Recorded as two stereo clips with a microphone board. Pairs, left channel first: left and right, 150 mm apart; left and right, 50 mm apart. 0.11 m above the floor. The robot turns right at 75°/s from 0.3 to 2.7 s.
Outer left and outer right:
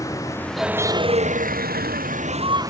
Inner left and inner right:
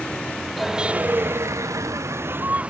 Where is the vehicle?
160° left; by 2.7 s 20° right.